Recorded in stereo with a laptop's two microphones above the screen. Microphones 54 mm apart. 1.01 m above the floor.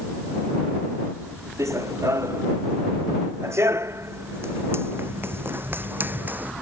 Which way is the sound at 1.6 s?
70° right (ahead or behind).